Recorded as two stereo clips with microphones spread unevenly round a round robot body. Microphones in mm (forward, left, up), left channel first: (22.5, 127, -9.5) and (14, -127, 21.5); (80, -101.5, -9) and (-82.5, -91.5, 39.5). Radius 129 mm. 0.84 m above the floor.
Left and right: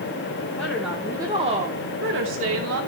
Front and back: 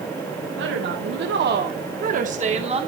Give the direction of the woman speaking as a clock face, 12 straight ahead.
6 o'clock.